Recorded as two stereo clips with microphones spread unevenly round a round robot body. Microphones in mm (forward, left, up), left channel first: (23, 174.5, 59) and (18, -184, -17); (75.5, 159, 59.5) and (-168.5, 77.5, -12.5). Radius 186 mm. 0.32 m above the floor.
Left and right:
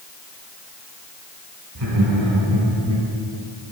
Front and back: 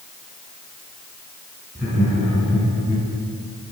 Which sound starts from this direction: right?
Laughter, at 1.8 s.